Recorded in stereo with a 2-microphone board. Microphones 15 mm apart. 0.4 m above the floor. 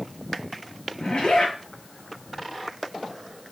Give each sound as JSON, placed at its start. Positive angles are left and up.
{"t": 1.0, "sound": "a zipper", "side_deg": 80, "distance_m": 6.0}